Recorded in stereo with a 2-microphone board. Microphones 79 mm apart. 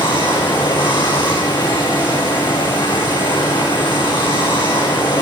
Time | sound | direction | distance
0.0 | running water | 75° left (ahead or behind) | 6.5 m